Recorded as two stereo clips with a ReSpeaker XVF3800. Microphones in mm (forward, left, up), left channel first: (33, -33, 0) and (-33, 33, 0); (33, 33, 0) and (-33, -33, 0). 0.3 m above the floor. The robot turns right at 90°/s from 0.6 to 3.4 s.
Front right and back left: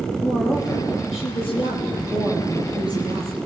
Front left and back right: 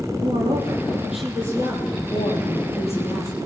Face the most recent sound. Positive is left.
turn(degrees=150)